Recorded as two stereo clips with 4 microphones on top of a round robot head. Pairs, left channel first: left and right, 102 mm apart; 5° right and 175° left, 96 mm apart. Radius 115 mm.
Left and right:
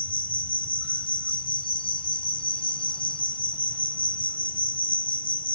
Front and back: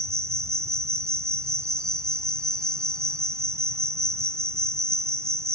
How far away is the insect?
About 1.4 m.